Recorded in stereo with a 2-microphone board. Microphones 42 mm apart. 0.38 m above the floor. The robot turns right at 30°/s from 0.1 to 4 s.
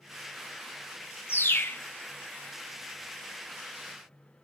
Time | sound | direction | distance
1.3 | a bird | 60° left (ahead or behind) | 0.8 m